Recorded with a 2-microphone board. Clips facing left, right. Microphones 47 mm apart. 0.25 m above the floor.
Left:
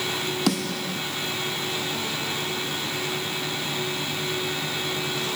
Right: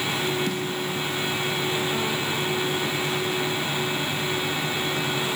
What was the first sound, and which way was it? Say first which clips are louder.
A snare drum: left 1 dB; 85° left.